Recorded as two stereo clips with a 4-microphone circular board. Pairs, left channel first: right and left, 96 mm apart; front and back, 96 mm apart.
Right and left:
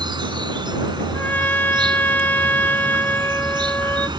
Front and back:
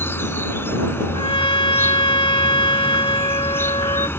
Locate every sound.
0.0 s an insect: 65° left
1.1 s a trumpet: 20° right